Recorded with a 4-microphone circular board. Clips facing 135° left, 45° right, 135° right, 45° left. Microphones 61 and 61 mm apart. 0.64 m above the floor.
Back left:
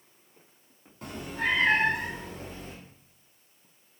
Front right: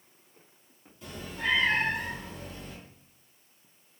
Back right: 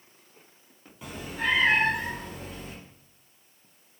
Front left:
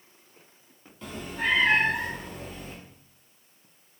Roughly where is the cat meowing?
Behind left.